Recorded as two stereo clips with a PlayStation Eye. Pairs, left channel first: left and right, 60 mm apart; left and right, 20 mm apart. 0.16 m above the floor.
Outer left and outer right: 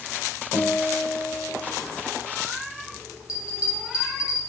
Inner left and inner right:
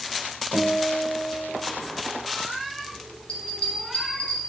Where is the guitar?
30° left (ahead or behind), 2.5 m.